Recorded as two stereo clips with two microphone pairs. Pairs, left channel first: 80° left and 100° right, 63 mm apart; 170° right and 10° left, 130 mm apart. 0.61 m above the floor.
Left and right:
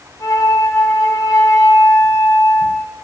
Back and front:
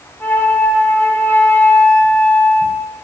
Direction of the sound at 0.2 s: 115° left.